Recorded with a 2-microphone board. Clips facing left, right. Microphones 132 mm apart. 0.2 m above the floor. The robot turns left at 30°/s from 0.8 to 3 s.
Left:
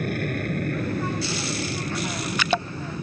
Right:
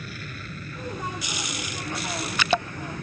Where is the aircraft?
55° left (ahead or behind); by 3.0 s 15° left (ahead or behind).